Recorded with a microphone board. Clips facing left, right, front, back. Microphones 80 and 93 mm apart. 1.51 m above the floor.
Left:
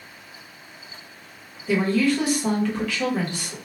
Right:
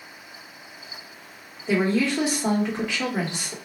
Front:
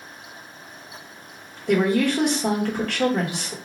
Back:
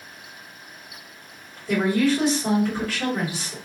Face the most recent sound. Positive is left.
turn(degrees=-20)